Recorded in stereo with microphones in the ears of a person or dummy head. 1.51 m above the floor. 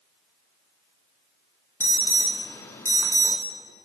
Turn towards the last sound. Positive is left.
turn(degrees=15)  # may be behind; listen again after turning